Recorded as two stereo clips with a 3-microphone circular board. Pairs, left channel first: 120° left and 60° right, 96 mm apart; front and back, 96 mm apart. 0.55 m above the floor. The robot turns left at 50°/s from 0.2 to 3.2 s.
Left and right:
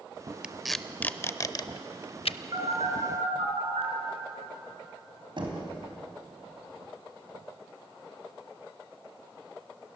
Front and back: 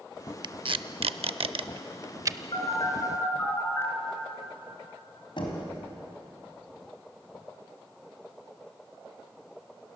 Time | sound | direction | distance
0.4 | tape being pulled | 140° right | 0.5 m
2.5 | a phone buzzing | 25° right | 4.5 m
5.4 | knocking | 30° right | 3.5 m